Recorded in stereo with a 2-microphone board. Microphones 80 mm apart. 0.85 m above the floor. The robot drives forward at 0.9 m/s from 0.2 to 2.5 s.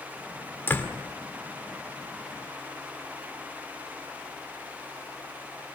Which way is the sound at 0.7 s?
25° left (ahead or behind).